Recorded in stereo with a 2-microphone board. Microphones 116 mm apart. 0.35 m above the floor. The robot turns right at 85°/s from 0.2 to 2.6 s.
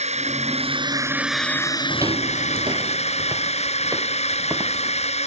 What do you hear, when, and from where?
0.0 s a drone: 100° right; by 5.3 s 105° left
1.9 s footsteps: 5° right (ahead or behind); by 4.8 s 25° right (ahead or behind)